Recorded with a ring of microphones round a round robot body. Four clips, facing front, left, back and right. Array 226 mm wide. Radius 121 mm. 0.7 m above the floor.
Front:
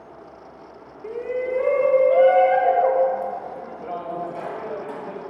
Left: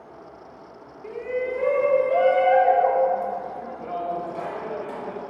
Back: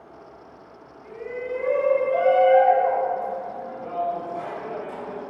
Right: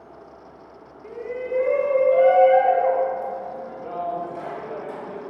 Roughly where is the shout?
Ahead.